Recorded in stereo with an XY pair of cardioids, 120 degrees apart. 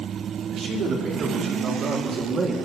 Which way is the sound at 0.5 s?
65° right.